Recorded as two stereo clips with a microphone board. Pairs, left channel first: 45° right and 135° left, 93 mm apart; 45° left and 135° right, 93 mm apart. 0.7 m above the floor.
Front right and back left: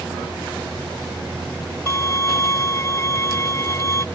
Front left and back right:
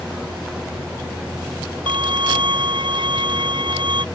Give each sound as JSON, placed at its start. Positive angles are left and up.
{"t": 1.9, "sound": "a violin", "azimuth_deg": -105}